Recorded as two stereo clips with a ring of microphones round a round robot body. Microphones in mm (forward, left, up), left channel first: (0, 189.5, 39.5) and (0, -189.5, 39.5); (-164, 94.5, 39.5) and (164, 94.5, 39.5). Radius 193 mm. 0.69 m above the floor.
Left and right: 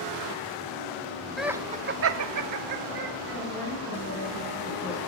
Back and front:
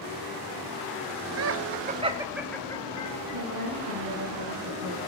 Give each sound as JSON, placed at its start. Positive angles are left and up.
{"t": 1.4, "sound": "laughter", "azimuth_deg": 0, "distance_m": 0.7}
{"t": 3.3, "sound": "a woman speaking", "azimuth_deg": 30, "distance_m": 7.0}